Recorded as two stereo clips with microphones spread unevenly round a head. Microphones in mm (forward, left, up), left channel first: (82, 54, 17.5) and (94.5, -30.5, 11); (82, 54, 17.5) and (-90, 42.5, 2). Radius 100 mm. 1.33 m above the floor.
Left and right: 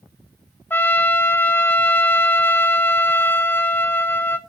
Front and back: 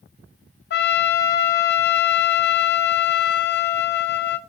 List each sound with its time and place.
0.7 s a trumpet: 30° left, 0.8 m